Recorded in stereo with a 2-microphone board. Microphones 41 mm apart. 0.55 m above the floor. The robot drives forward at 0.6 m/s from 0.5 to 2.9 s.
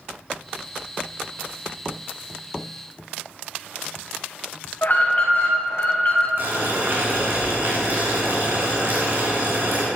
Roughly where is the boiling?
Right.